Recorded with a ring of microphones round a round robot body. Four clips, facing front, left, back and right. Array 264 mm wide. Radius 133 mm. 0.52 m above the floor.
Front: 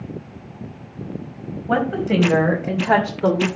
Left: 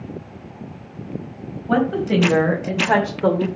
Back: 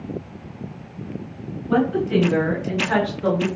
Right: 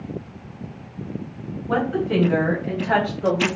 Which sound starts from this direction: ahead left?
A woman speaking, at 1.7 s.